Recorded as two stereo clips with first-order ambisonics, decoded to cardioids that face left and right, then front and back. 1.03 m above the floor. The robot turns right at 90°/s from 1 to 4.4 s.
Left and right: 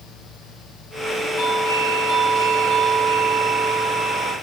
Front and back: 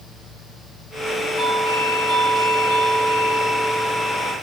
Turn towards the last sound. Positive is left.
turn(degrees=-30)